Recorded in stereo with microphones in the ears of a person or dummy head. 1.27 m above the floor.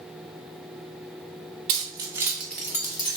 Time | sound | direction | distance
1.7 | keys jangling | 35° right (ahead or behind) | 0.6 m